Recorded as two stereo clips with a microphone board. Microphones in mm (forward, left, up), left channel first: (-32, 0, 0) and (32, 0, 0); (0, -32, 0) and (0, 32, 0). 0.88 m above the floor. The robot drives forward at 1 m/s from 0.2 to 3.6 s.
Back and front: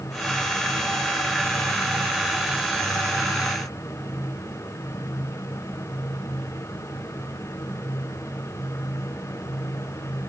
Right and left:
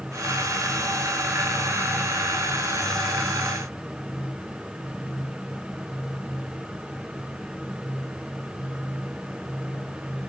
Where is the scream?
No scream in this recording.